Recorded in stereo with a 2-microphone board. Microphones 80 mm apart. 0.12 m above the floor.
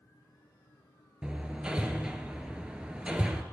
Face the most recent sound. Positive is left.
turn(degrees=-10)  # may be behind; listen again after turning